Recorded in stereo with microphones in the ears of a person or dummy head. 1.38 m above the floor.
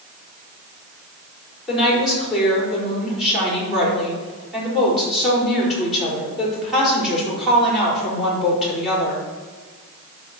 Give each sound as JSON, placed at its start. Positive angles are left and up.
{"t": 1.7, "sound": "a woman speaking", "side_deg": 0, "distance_m": 5.0}